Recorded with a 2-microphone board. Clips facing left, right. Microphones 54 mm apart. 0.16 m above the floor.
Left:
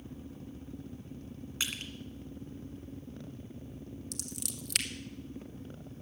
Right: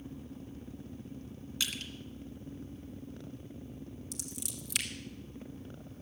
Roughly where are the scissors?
Left.